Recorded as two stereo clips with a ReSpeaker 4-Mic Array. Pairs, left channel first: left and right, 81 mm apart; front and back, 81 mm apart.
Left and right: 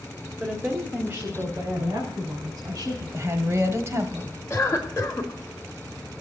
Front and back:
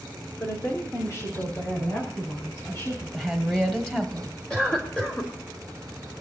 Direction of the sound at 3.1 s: 80° right.